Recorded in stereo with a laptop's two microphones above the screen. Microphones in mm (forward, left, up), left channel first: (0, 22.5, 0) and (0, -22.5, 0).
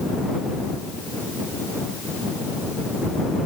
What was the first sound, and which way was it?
Only background noise.